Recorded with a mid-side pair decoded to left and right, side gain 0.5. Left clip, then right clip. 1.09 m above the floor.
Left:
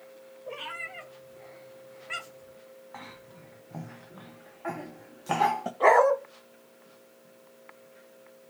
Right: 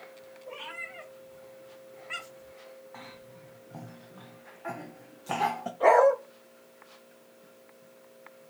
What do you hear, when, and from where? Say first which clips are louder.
0.5 s a cat meowing: left 3 dB; 40° left, 2 m; by 2.5 s 5° right, 0.6 m
2.9 s a cough: left 5 dB; 25° left, 0.5 m
5.8 s a dog barking: even; 40° left, 1.5 m